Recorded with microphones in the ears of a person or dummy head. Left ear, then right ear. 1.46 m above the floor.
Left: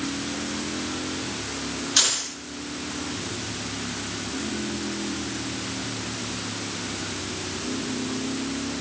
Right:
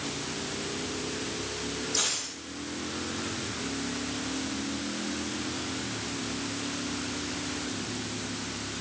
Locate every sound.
2.0 s keys jangling: 50° left (ahead or behind), 4 m